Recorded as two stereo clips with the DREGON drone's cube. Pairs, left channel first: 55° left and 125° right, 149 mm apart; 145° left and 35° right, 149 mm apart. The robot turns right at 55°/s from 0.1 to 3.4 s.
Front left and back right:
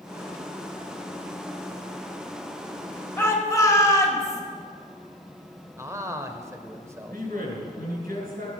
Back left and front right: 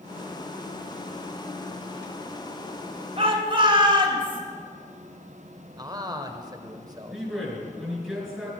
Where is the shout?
15° right, 1.9 m; by 4.4 s straight ahead, 1.9 m.